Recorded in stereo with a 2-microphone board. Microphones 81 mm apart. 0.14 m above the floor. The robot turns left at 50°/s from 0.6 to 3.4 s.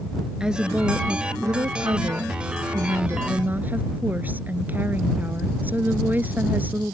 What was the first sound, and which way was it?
A woman speaking, 10° right.